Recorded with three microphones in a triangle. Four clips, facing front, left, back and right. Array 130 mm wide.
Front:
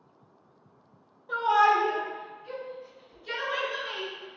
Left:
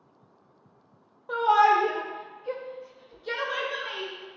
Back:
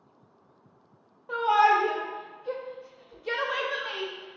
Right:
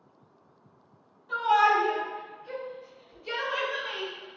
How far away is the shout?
About 1.0 m.